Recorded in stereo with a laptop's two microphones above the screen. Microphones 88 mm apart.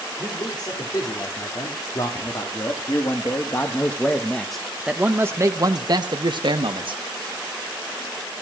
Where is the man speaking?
55° left (ahead or behind), 3.5 m; by 7.0 s 70° right (ahead or behind), 1.6 m.